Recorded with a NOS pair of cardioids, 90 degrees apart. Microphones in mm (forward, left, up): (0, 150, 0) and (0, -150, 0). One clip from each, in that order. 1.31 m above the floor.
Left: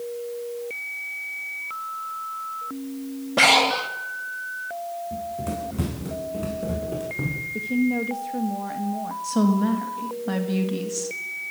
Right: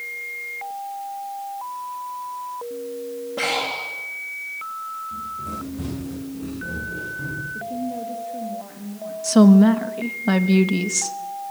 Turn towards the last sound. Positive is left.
turn(degrees=-50)